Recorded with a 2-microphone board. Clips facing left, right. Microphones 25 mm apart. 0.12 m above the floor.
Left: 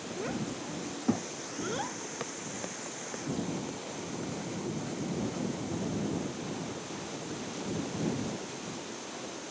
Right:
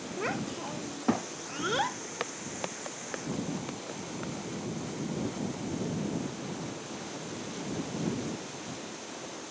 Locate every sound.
0.2 s a child speaking: 40° right (ahead or behind)
2.2 s footsteps: 30° right (ahead or behind); by 4.3 s 40° right (ahead or behind)